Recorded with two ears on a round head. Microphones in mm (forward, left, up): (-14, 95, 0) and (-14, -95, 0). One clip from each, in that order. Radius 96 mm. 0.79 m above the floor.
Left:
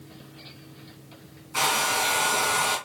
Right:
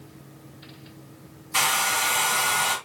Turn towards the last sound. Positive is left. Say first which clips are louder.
# right 1 dB
turn(degrees=-80)